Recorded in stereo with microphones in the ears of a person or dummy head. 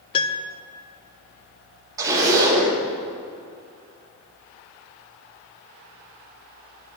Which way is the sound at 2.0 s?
20° right (ahead or behind).